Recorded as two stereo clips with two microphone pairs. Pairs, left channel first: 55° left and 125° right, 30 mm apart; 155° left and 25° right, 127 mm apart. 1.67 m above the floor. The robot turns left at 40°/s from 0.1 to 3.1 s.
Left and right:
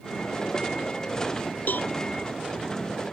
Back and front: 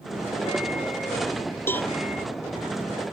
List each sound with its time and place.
1.7 s a cowbell: 80° left; by 1.9 s 70° left